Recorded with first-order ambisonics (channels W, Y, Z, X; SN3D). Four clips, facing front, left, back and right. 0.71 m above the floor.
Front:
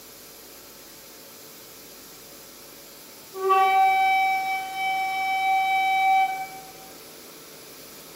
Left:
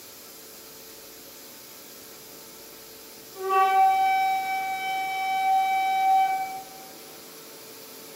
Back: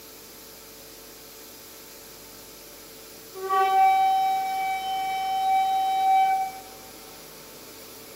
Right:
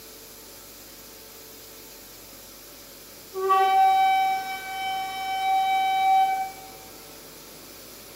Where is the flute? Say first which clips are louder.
Right 1 dB, front 2 dB; 55° right, 1.7 m.